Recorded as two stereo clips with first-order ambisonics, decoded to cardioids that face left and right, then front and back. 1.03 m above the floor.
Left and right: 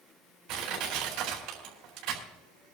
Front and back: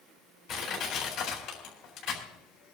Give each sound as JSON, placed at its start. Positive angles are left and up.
{"t": 0.5, "sound": "crushing", "azimuth_deg": -45, "distance_m": 4.5}